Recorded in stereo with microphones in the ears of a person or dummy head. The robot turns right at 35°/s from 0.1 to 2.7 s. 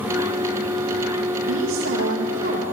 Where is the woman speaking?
80° right, 2.5 m; by 2.6 s 40° right, 2.5 m.